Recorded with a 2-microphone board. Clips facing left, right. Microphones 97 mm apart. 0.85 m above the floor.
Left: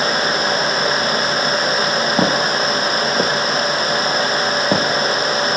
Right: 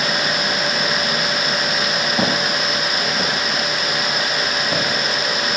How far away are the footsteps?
About 2 m.